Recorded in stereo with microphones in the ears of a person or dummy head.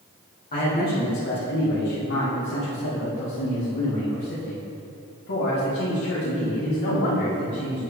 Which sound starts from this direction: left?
A man speaking, at 0.5 s.